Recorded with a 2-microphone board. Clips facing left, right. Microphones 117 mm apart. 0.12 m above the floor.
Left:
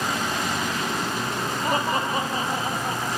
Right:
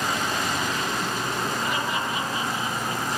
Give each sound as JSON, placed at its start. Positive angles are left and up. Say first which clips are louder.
{"t": 1.6, "sound": "laughter", "louder": "left 3 dB", "side_deg": 40, "distance_m": 4.5}